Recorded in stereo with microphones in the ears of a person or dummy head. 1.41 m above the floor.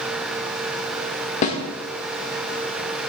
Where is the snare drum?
40° left (ahead or behind), 1.3 m.